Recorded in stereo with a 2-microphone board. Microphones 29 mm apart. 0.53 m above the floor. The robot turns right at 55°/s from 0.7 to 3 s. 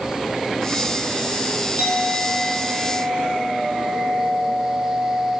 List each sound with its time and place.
1.8 s a clink: 70° right, 2.5 m; by 5.3 s straight ahead, 2.5 m